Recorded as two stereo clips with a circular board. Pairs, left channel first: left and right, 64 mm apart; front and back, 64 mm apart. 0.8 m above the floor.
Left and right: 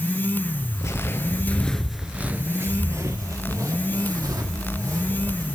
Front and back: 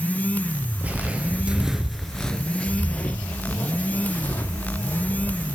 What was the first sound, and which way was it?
Footsteps, 120° left.